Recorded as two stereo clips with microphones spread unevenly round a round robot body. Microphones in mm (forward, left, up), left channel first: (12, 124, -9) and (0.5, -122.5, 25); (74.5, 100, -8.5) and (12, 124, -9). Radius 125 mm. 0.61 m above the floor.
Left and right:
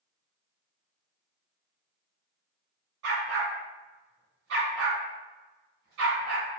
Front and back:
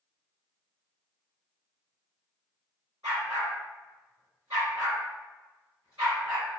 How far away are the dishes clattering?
I don't hear dishes clattering.